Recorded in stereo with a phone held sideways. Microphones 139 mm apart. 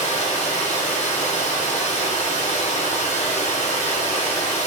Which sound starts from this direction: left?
Running water, at 0.0 s.